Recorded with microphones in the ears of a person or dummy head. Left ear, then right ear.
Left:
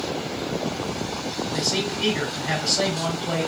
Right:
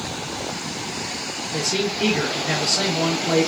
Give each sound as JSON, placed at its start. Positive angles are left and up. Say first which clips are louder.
{"t": 1.5, "sound": "a man speaking", "louder": "right 3 dB", "side_deg": -30, "distance_m": 1.2}